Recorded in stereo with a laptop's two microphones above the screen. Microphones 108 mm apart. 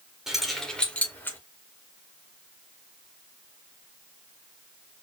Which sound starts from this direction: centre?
Keys jangling, at 0.3 s.